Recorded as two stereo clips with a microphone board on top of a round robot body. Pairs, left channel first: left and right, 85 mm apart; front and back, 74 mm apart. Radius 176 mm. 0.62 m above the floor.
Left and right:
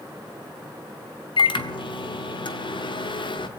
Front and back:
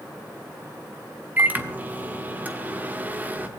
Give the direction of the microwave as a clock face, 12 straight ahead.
8 o'clock.